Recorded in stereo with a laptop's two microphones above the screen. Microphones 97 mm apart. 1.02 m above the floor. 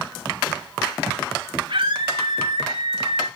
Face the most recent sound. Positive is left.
turn(degrees=-70)  # may be behind; listen again after turning